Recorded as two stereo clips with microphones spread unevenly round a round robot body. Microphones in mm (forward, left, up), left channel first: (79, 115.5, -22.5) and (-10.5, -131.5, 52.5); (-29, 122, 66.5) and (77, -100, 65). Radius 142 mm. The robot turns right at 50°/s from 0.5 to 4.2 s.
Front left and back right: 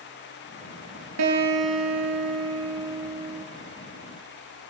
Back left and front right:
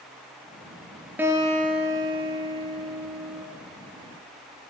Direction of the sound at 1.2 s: 150° right.